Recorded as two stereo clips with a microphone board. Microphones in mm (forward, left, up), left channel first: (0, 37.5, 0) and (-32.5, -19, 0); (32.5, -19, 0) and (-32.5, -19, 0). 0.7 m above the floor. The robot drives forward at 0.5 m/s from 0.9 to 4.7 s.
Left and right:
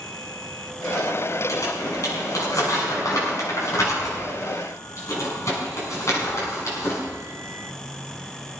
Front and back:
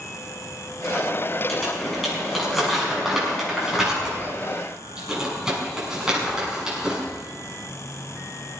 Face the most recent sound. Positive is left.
turn(degrees=100)